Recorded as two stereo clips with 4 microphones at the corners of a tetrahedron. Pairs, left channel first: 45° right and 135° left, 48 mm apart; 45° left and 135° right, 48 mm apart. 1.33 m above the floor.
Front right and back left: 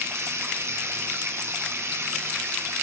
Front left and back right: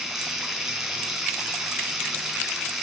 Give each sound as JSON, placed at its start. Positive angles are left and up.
{"t": 0.0, "sound": "running water", "azimuth_deg": 145, "distance_m": 3.0}